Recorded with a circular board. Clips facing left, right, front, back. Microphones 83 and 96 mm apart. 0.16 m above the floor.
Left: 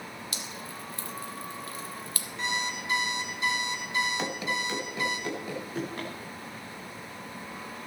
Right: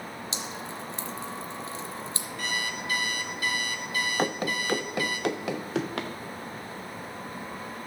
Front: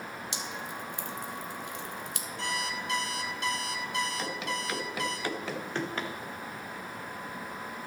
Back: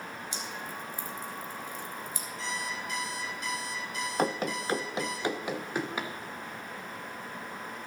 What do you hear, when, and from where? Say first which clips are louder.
0.3 s dripping: right 4 dB, front 1 dB; 20° right, 1.0 m
2.4 s an alarm clock: left 1 dB, front 2 dB; 25° left, 1.5 m
4.2 s running footsteps: right 3 dB, back 5 dB; 135° right, 0.9 m; by 6.1 s 95° right, 1.8 m